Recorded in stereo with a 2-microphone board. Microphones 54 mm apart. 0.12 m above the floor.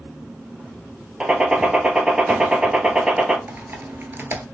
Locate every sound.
1.2 s a gunshot: 15° right (ahead or behind), 0.8 m
3.5 s typing on a keyboard: 45° right (ahead or behind), 0.7 m